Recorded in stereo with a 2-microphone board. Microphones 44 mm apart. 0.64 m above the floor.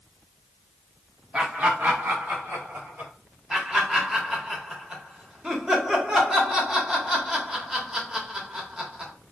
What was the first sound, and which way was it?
Laughter, 20° right (ahead or behind).